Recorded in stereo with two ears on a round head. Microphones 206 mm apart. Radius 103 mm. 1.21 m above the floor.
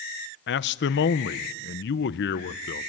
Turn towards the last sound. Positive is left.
turn(degrees=50)  # may be behind; listen again after turning